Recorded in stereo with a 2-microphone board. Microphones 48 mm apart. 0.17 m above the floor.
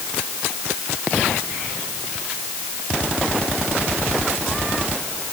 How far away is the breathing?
No breathing in this recording.